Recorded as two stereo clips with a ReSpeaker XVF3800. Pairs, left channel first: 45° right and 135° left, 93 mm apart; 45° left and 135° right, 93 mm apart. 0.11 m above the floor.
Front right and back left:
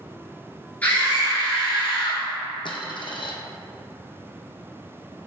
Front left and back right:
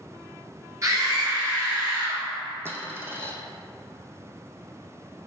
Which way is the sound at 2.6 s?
70° right.